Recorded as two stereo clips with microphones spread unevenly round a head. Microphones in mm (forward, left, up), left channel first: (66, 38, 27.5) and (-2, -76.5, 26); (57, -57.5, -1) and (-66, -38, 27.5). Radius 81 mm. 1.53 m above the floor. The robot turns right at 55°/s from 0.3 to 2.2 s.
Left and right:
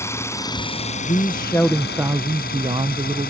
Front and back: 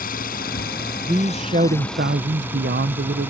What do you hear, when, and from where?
0.0 s an engine running: 10° right; by 3.3 s 95° left
1.0 s a man speaking: 105° left; by 3.3 s 170° left